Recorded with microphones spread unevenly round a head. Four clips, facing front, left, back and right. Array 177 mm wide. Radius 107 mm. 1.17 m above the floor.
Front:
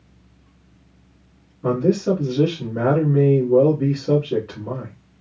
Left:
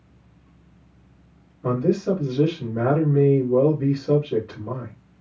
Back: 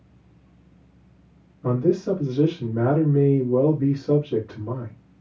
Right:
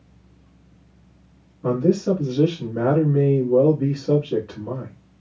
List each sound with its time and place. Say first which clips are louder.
1.6 s a man speaking: right 2 dB, front 2 dB; straight ahead, 2.5 m